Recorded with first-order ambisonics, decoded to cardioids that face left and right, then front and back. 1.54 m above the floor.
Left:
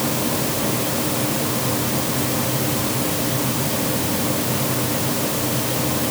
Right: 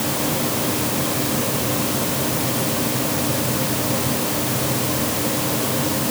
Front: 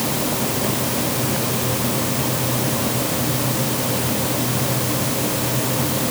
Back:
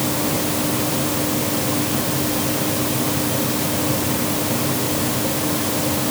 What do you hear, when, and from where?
Only background noise.